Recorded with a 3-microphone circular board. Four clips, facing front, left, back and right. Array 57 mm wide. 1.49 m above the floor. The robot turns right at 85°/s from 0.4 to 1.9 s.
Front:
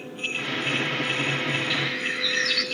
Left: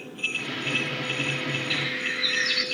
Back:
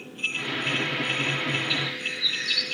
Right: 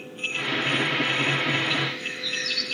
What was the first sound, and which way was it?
A bird, 10° left.